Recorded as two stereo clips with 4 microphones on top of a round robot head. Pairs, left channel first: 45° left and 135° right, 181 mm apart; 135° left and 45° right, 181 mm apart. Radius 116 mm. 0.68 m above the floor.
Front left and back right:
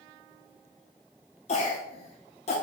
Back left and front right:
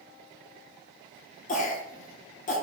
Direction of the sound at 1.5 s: 95° left.